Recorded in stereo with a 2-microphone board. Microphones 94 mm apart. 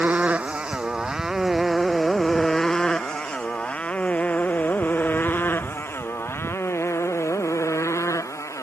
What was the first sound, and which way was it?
A motorcycle, 15° right (ahead or behind).